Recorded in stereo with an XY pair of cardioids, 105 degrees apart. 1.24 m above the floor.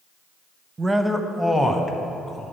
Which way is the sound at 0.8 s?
25° right.